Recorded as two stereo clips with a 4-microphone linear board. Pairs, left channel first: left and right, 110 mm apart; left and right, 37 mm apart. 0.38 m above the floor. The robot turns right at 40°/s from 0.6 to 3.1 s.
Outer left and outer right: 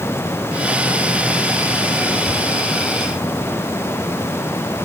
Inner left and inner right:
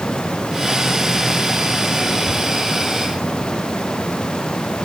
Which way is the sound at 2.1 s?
45° left (ahead or behind).